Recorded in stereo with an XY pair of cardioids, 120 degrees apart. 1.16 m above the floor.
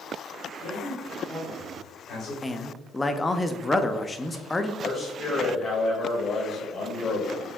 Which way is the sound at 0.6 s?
65° left.